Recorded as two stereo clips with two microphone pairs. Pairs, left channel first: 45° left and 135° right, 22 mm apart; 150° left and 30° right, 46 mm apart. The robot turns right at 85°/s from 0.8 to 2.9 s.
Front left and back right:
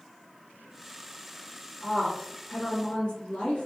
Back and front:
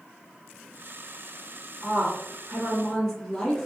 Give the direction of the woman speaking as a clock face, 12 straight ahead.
1 o'clock.